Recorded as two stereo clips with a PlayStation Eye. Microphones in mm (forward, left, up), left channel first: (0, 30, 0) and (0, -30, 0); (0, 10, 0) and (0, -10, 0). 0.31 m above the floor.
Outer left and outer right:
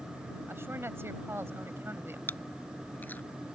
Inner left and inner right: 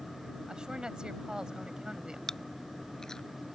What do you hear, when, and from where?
0.5 s a woman speaking: 45° right (ahead or behind)
2.3 s chewing: 30° left (ahead or behind)